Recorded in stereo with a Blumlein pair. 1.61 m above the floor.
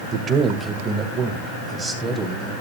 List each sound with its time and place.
0.1 s a man speaking: 25° right, 1.6 m; by 2.5 s 10° right, 3.5 m